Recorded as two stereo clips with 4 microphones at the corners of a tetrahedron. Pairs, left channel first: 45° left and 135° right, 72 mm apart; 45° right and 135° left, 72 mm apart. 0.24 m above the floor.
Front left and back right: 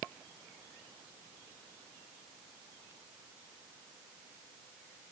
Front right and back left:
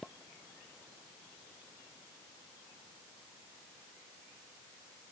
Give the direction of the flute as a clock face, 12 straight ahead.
I don't hear a flute.